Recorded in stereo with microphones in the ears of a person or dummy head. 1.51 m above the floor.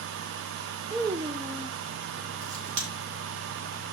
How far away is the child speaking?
About 0.6 m.